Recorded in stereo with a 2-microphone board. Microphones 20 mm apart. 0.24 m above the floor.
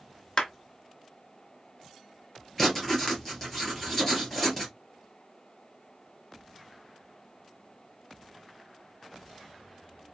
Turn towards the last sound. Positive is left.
turn(degrees=5)  # may be behind; listen again after turning